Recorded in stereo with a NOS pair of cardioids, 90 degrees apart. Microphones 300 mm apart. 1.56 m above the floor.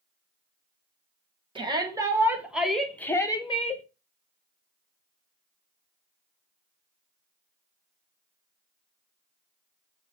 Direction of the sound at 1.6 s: 15° right.